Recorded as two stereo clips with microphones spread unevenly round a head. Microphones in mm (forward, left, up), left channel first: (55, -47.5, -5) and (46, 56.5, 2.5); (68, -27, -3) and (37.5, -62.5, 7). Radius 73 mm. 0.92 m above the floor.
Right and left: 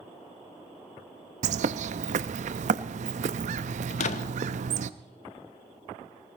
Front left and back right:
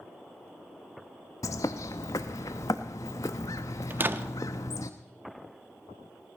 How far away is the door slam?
About 1.1 m.